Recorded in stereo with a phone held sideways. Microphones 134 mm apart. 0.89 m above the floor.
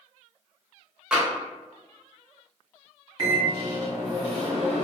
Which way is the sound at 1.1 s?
5° right (ahead or behind).